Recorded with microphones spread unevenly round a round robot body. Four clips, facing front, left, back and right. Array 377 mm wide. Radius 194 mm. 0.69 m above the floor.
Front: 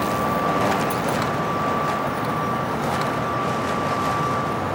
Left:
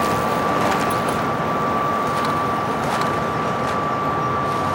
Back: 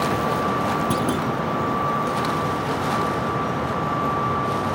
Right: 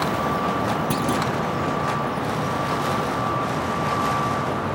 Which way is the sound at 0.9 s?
150° right.